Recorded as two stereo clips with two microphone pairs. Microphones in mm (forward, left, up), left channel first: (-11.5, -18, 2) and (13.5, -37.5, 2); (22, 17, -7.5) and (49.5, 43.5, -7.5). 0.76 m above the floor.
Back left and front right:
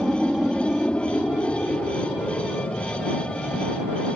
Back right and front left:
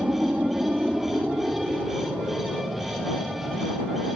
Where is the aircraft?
40° left; by 4.2 s 120° left.